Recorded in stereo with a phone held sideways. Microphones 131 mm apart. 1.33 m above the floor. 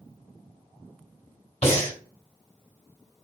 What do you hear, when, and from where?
1.6 s breathing: 50° left (ahead or behind), 2 m